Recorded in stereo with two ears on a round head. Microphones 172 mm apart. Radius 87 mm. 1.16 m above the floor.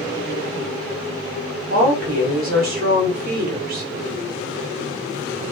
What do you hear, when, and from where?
1.7 s a woman speaking: 50° right (ahead or behind), 1.5 m